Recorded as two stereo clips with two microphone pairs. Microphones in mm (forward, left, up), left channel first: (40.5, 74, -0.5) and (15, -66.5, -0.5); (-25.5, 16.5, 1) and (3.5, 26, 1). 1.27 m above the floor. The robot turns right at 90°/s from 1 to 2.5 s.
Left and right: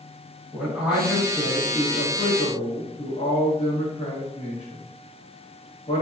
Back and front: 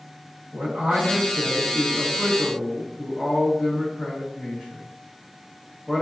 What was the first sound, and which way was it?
A man speaking, 20° right.